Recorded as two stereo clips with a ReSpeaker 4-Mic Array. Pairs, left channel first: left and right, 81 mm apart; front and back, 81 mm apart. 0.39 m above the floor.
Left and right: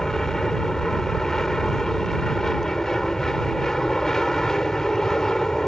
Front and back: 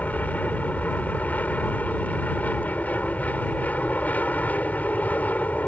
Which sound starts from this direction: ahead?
An aircraft, at 0.0 s.